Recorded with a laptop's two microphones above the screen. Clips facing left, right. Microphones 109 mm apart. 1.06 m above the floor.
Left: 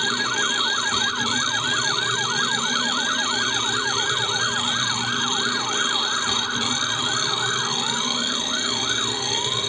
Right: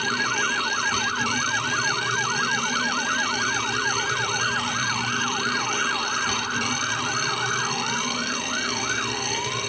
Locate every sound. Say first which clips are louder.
0.0 s a machine running: even; 5° left (ahead or behind)